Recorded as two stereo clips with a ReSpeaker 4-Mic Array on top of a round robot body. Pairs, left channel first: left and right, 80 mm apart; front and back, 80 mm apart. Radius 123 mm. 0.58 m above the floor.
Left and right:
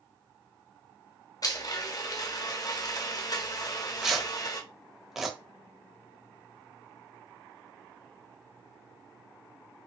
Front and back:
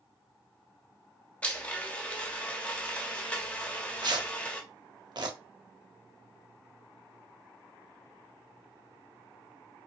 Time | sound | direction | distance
1.4 | a blender | 70° left | 1.2 m
3.6 | tearing paper | 175° right | 1.5 m